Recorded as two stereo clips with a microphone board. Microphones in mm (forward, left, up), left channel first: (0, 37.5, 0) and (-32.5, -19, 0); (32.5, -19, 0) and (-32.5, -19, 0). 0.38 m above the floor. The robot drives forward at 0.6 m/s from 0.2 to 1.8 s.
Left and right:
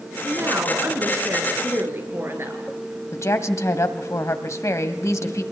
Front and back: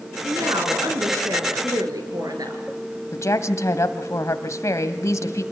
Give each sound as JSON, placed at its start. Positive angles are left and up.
{"t": 0.2, "sound": "a woman speaking", "azimuth_deg": -170, "distance_m": 4.0}
{"t": 3.1, "sound": "a woman speaking", "azimuth_deg": 30, "distance_m": 1.9}